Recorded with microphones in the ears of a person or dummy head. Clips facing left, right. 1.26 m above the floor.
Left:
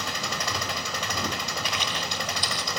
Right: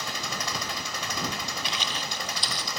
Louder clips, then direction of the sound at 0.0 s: Left 2 dB; 55° left (ahead or behind).